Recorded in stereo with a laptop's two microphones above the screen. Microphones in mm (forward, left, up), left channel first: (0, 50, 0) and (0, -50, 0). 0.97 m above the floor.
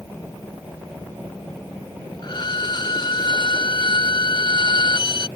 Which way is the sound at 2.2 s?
50° left (ahead or behind).